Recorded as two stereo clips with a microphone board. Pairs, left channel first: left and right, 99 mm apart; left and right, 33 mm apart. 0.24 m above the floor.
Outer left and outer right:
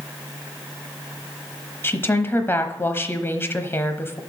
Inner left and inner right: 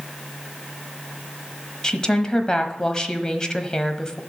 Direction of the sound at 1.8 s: 25° left (ahead or behind).